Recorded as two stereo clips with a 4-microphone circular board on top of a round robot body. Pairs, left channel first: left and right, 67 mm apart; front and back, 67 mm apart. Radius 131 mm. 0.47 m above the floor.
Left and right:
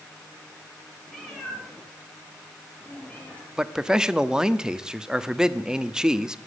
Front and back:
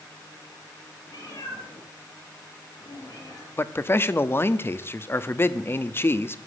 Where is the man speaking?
15° right, 1.1 m.